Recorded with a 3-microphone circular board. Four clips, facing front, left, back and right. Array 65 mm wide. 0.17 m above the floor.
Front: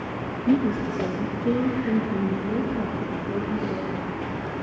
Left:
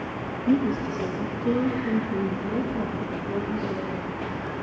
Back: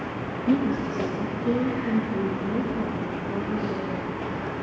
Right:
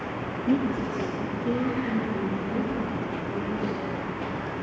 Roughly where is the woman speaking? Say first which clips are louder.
Left 2 dB, front 1 dB; ahead left.